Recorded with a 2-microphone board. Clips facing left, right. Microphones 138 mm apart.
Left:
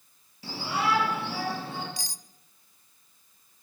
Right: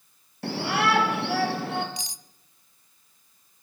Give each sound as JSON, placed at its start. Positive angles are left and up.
{"t": 0.4, "sound": "a shout", "side_deg": -65, "distance_m": 4.0}
{"t": 2.0, "sound": "cutlery clinking", "side_deg": -20, "distance_m": 0.6}